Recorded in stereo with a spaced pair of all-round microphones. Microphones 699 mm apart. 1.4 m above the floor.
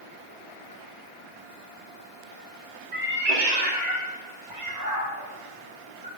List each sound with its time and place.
2.9 s a cat meowing: 70° right (ahead or behind), 1.9 m; by 6.1 s 10° right (ahead or behind), 5.5 m